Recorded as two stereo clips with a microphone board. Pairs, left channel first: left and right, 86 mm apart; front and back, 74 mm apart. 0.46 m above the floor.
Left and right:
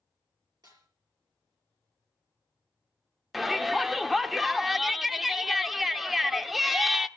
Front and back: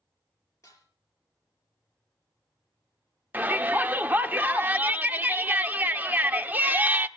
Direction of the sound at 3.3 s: 175° right.